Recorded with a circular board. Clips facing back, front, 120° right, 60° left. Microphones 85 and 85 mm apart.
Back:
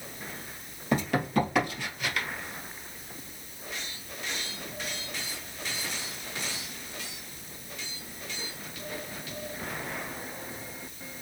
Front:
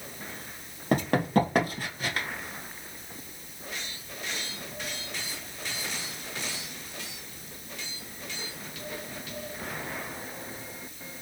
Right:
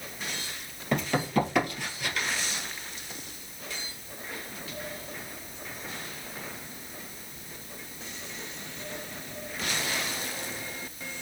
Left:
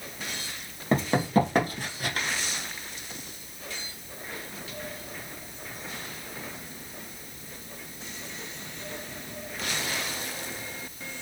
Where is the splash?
No splash in this recording.